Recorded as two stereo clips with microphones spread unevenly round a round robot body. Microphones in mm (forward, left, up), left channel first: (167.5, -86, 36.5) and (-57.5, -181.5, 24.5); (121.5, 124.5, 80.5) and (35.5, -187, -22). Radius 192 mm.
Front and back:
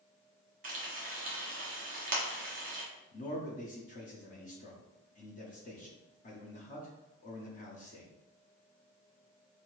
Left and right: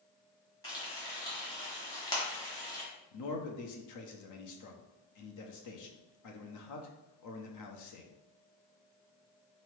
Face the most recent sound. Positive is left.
turn(degrees=60)